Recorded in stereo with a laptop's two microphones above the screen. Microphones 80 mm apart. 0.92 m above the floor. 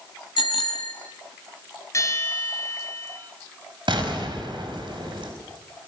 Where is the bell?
40° left (ahead or behind), 4.5 m.